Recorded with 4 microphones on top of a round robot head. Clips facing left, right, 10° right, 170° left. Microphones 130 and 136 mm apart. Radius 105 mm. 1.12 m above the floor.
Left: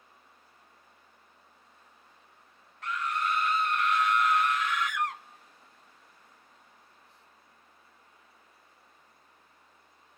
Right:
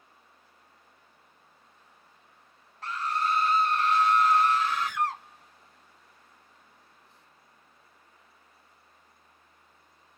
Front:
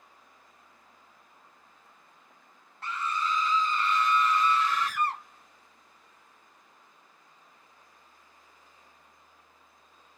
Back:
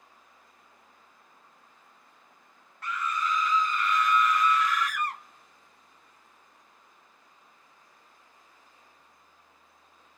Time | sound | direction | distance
2.8 | a scream | 50° right | 0.5 m